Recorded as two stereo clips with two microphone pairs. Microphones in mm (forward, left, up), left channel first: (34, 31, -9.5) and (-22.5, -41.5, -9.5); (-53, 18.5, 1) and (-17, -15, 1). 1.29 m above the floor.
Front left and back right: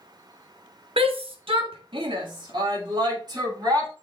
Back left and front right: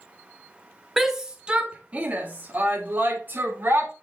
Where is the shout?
125° right, 1.4 m; by 3.9 s 85° right, 4.5 m.